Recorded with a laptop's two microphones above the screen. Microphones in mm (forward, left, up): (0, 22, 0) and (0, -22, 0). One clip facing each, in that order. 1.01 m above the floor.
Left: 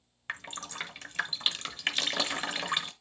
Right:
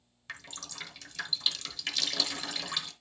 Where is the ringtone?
I don't hear a ringtone.